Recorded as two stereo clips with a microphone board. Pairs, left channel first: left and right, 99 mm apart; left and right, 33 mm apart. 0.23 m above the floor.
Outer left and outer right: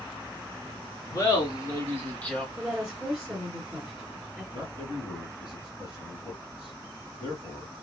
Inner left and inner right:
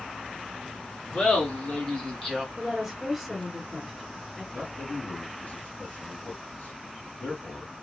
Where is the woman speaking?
5° right (ahead or behind), 2.0 m.